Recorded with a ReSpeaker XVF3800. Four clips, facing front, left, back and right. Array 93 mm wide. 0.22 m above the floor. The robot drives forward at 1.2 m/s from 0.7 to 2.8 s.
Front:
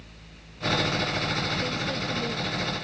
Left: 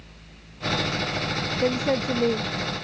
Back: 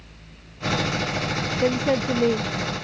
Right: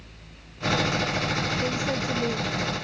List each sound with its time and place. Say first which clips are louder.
1.6 s a woman speaking: left 4 dB, back 9 dB; 145° left; by 2.9 s 150° left